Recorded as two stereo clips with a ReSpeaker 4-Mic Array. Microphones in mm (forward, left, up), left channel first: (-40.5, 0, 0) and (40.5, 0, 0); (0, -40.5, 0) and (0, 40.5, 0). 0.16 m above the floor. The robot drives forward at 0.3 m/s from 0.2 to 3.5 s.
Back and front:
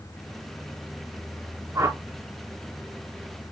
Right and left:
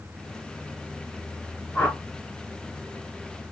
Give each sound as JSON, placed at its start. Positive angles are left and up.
{"t": 1.8, "sound": "a whoosh", "azimuth_deg": -35, "distance_m": 1.4}